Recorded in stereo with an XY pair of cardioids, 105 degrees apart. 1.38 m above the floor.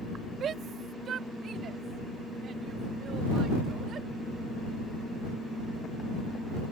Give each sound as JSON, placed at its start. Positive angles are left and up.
{"t": 0.4, "sound": "a shout", "azimuth_deg": -55}